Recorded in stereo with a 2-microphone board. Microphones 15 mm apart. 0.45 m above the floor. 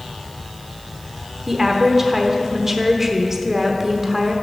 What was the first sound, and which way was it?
A woman speaking, 25° right (ahead or behind).